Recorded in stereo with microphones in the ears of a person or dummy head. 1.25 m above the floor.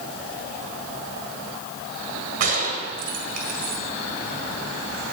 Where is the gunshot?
45° right (ahead or behind), 1.7 m.